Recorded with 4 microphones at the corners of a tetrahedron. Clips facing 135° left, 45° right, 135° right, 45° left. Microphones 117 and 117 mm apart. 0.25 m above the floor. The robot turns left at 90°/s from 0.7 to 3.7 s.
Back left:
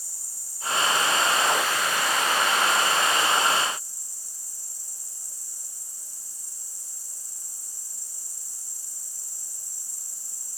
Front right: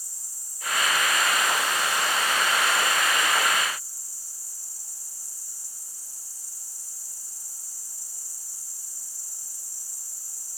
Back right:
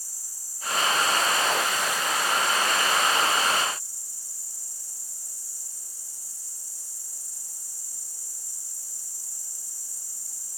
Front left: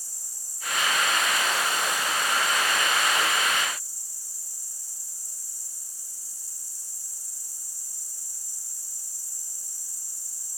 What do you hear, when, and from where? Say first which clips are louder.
0.0 s an insect: back left 2 dB, front left 1 dB; 115° left, 4 m; by 10.6 s 155° right, 4 m